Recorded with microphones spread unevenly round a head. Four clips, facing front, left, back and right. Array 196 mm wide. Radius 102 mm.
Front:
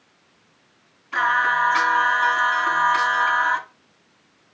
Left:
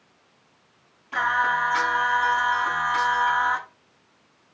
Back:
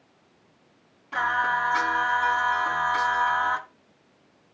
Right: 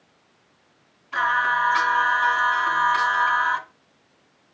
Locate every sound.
1.1 s singing: 150° left, 8.5 m